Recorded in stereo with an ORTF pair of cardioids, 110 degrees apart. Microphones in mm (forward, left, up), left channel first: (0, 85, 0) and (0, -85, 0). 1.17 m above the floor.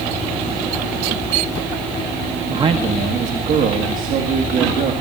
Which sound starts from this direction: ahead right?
A man speaking, at 2.5 s.